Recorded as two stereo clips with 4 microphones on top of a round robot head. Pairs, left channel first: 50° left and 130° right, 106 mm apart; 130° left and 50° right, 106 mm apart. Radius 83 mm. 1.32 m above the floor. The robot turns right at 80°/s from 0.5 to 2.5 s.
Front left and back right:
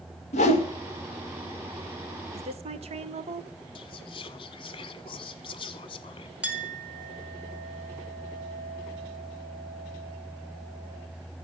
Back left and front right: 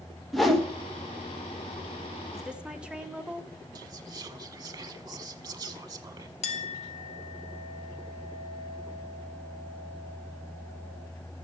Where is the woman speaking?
140° right, 1.4 m; by 3.5 s 130° right, 1.4 m.